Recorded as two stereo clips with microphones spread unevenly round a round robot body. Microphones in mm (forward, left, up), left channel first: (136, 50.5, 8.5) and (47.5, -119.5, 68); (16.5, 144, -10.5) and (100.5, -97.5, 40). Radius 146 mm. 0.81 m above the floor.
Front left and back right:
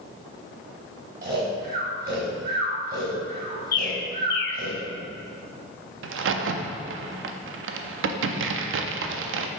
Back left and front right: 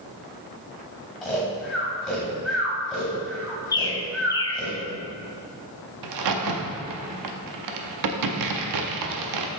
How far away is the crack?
About 0.5 m.